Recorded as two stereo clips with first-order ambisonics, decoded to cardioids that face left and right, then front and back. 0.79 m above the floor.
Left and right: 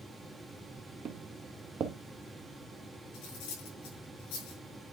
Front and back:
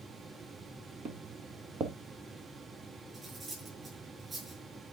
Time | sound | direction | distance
1.1 | footsteps | 130° right | 1.0 m
3.1 | cutlery clinking | 105° left | 6 m